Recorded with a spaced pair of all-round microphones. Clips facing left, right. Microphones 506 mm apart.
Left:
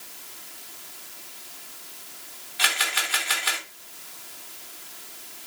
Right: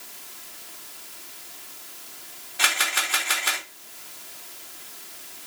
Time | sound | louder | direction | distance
2.6 | a camera shutter | right 1 dB | 65° right (ahead or behind) | 2.5 m